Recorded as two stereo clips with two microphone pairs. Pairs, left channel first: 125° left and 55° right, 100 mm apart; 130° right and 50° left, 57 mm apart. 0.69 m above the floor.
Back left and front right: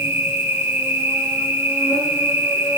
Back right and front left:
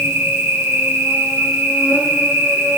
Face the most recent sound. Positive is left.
turn(degrees=15)